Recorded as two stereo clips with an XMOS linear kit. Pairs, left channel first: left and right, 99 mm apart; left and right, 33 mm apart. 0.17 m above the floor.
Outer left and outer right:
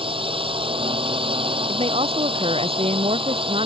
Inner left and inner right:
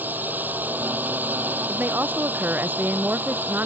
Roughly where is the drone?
Right.